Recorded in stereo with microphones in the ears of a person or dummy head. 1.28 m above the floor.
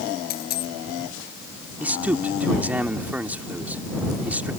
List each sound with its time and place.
0.3 s a dropped coin: 50° left (ahead or behind)
1.8 s a man speaking: 10° right (ahead or behind)